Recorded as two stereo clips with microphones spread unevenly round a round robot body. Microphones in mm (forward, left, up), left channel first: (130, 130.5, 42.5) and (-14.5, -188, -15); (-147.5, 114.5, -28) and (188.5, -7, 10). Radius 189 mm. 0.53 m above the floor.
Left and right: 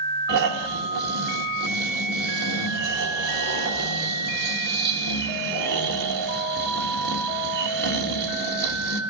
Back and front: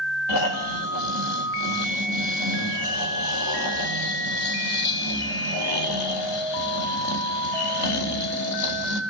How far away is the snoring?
About 2.5 m.